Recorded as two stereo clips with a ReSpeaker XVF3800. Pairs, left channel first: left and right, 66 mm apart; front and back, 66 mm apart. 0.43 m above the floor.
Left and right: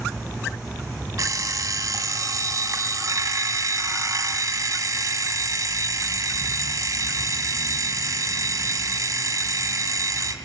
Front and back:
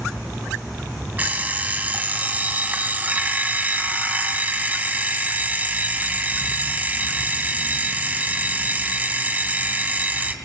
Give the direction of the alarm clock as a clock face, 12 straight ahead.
4 o'clock.